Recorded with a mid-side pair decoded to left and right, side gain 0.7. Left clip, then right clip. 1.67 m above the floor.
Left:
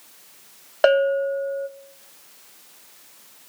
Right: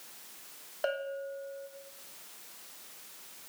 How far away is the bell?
About 0.5 m.